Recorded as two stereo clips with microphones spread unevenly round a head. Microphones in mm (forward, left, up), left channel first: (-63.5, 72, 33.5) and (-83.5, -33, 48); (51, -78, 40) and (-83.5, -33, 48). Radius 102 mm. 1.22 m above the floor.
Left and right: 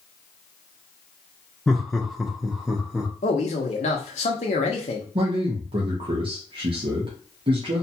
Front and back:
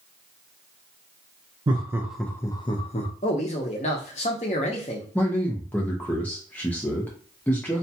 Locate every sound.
1.7 s laughter: 150° left, 0.6 m; by 3.1 s 10° right, 0.9 m
3.2 s a man speaking: 40° left, 0.6 m
5.2 s a man speaking: 90° right, 0.7 m